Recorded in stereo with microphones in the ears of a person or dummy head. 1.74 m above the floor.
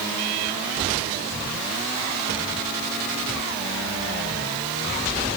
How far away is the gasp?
I don't hear a gasp.